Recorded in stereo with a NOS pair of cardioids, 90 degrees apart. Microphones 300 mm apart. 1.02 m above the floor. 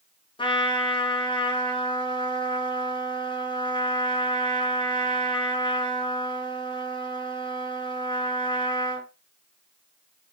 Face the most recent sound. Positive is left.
turn(degrees=15)